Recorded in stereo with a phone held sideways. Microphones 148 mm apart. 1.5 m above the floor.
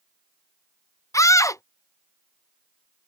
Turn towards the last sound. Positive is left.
turn(degrees=20)  # may be behind; listen again after turning